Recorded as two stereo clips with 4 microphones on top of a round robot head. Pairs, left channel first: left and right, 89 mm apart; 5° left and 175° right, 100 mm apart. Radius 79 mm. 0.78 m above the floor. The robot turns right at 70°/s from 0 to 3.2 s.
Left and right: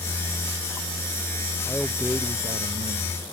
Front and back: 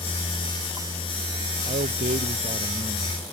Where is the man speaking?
165° left; by 3.2 s 85° right.